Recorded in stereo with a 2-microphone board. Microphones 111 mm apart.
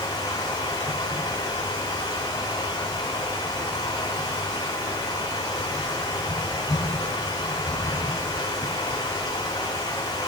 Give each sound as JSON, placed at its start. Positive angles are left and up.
{"t": 0.0, "sound": "running water", "side_deg": 40, "distance_m": 5.0}